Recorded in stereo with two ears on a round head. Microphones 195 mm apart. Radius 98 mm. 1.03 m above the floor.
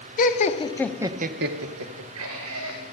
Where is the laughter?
40° left (ahead or behind), 1.4 m; by 2.8 s 70° right (ahead or behind), 2.5 m.